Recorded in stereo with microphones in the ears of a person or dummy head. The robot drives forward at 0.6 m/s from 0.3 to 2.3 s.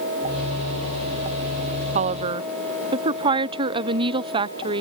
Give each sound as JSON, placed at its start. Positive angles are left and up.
{"t": 1.9, "sound": "a woman speaking", "side_deg": -40}